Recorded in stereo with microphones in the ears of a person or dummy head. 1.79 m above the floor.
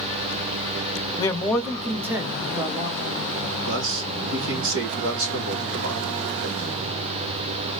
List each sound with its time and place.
1.2 s a man speaking: 30° left (ahead or behind), 0.9 m; by 3.2 s 25° right (ahead or behind), 1.8 m
3.7 s a man speaking: 70° right (ahead or behind), 1.5 m